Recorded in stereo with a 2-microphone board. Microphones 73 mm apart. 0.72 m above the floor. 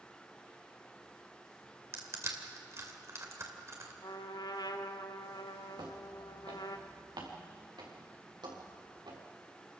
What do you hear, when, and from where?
1.9 s crushing: 40° right (ahead or behind), 2.5 m
4.0 s a trumpet: 75° left (ahead or behind), 1.3 m
5.8 s footsteps: 65° right (ahead or behind), 3 m; by 9.2 s 85° right, 6 m